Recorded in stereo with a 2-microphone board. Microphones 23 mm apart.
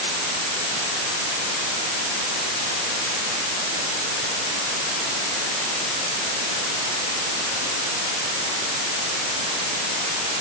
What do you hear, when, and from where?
Only background noise.